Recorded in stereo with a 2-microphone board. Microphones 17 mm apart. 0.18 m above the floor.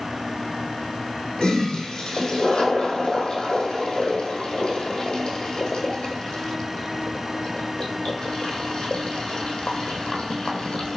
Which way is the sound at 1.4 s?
65° left (ahead or behind).